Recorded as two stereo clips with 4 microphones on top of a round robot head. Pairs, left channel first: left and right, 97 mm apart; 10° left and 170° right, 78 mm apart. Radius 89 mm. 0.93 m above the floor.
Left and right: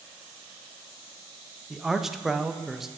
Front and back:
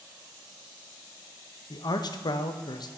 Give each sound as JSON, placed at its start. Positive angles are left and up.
{"t": 1.7, "sound": "a man speaking", "azimuth_deg": -5, "distance_m": 0.8}